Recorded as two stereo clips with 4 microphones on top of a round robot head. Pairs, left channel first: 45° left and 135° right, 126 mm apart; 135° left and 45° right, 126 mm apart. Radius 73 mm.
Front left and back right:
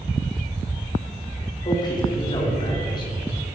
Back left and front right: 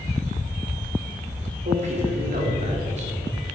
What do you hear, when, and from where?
1.6 s a man speaking: 15° right, 3.5 m